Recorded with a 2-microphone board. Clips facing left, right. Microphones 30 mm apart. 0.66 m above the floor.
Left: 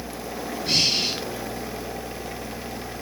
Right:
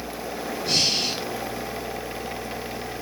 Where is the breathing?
10° left (ahead or behind), 4 m.